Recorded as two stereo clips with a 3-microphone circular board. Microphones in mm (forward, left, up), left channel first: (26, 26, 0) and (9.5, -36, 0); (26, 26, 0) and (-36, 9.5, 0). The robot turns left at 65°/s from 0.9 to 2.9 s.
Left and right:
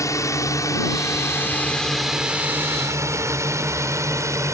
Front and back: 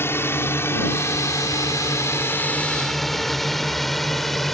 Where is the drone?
60° left; by 4.5 s 75° right.